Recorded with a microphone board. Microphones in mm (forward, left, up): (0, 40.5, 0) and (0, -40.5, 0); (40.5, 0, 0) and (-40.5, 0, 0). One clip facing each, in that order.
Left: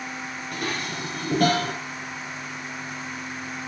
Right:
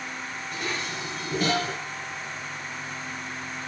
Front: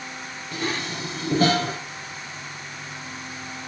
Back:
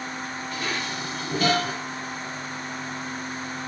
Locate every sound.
0.5 s dishes clattering: 55° left, 3.5 m